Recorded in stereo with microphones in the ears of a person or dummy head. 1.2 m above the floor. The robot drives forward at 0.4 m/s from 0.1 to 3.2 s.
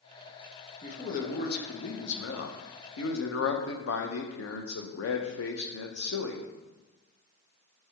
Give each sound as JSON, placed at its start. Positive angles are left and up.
{"t": 0.8, "sound": "a man speaking", "side_deg": 40, "distance_m": 1.1}